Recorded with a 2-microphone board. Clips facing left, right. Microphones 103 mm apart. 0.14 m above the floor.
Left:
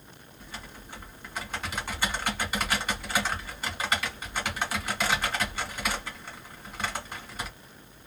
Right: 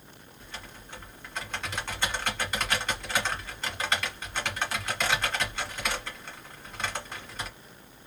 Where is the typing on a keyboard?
5° left (ahead or behind), 1.6 m.